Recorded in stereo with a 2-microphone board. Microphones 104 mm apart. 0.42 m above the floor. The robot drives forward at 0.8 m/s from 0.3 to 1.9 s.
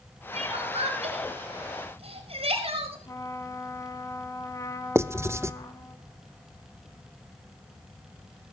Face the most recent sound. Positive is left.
turn(degrees=-25)  # may be behind; listen again after turning